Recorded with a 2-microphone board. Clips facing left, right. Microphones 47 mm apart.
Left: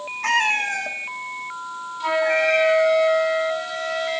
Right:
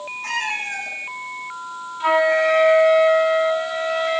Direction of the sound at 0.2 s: 60° left (ahead or behind).